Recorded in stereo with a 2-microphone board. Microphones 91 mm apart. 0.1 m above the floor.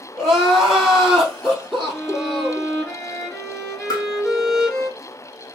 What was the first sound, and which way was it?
Crying, centre (ahead or behind).